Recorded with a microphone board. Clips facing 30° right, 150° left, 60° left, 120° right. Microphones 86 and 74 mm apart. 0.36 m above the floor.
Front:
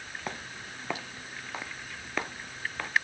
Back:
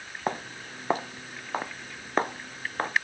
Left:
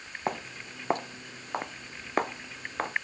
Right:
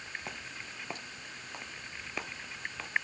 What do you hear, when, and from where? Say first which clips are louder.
0.3 s footsteps: back 10 dB, left 9 dB; 100° left